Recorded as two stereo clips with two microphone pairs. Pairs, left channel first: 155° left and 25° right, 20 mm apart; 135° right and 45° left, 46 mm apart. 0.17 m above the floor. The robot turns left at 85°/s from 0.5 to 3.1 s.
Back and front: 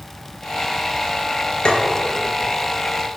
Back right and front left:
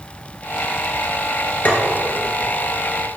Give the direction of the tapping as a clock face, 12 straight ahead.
6 o'clock.